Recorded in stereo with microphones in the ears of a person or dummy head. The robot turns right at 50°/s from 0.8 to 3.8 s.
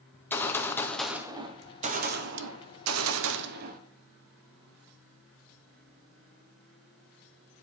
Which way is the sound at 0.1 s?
170° left.